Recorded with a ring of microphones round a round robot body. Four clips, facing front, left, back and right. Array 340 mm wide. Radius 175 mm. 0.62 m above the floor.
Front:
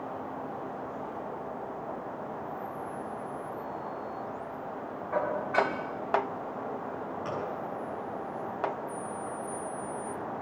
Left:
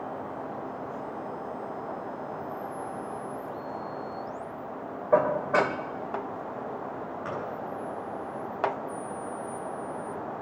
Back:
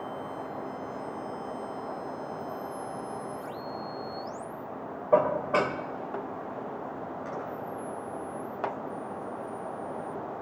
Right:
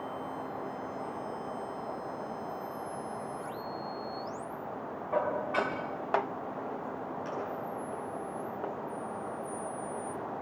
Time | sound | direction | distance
5.1 | dishes clattering | 135° left | 2.0 m
7.2 | a gunshot | 45° left | 7.5 m